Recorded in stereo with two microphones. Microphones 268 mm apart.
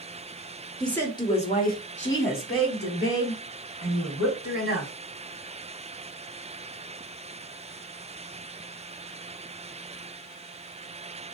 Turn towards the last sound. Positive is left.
turn(degrees=60)  # may be behind; listen again after turning